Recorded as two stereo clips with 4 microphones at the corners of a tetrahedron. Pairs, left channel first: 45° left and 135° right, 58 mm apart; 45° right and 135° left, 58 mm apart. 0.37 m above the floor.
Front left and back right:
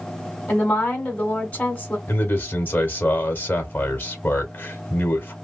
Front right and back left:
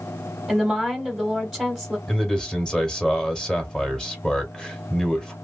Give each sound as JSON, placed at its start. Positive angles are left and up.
{"t": 0.5, "sound": "a woman speaking", "azimuth_deg": 55, "distance_m": 1.2}
{"t": 2.1, "sound": "a man speaking", "azimuth_deg": 25, "distance_m": 1.0}